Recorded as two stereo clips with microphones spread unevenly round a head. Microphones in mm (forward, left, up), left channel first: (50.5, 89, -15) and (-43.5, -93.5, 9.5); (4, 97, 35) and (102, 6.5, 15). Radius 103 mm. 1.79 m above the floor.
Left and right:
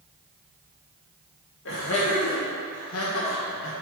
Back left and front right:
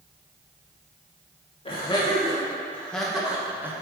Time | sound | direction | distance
1.6 | laughter | 95° left | 1.7 m